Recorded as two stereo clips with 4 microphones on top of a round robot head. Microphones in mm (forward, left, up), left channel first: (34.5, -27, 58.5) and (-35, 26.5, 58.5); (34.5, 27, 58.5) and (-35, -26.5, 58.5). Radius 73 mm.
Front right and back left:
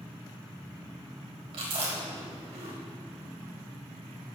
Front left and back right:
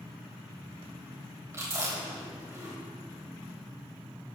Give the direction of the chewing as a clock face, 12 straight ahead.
7 o'clock.